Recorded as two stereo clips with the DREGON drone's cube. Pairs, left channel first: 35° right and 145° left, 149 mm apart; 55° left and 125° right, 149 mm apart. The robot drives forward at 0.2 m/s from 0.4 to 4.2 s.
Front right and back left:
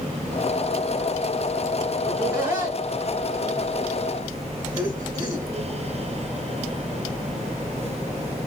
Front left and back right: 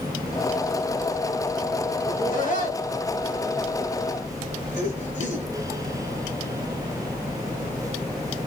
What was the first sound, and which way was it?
Laughter, 70° left.